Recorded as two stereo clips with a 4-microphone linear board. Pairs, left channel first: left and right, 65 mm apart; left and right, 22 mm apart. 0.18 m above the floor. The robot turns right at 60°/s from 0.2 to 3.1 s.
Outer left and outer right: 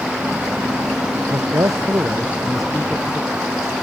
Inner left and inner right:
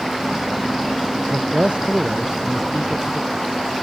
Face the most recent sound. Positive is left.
turn(degrees=25)